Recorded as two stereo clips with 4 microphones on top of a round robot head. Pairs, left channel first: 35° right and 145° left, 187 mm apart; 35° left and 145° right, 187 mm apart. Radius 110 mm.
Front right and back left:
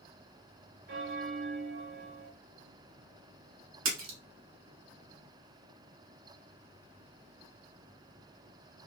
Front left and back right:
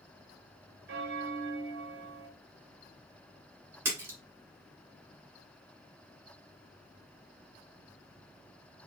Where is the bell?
Straight behind, 0.8 m.